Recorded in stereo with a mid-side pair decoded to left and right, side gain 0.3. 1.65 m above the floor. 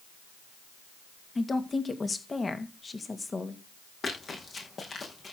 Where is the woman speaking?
40° left, 2.5 m.